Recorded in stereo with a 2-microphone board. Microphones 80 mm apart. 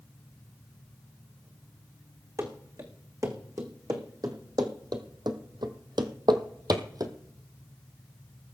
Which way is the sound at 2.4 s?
40° right (ahead or behind).